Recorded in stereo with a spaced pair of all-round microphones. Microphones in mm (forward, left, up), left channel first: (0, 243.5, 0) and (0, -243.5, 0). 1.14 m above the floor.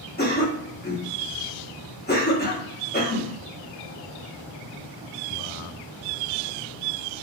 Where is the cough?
20° left (ahead or behind), 1.1 m.